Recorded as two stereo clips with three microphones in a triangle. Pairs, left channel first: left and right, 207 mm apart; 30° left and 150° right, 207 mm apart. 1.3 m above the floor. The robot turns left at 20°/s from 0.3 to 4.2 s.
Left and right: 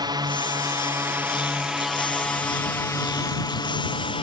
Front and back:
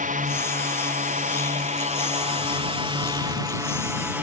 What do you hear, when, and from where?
0.0 s a drone: 150° right; by 4.2 s 135° left